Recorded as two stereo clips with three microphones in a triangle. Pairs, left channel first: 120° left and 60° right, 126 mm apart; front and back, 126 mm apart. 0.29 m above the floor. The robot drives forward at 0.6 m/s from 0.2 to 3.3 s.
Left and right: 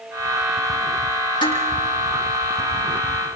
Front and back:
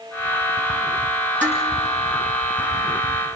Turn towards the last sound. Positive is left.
turn(degrees=175)